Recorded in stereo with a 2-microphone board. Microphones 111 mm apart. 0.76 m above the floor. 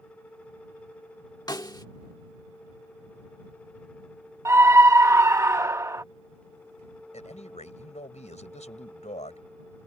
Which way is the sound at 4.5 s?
25° right (ahead or behind).